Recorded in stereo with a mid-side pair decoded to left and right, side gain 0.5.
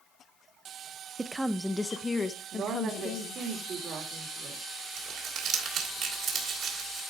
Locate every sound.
1.2 s a woman speaking: 20° right, 0.5 m; by 3.4 s 50° left, 1.4 m
2.5 s a woman speaking: 55° right, 2.5 m
5.0 s crumpling: 65° right, 3 m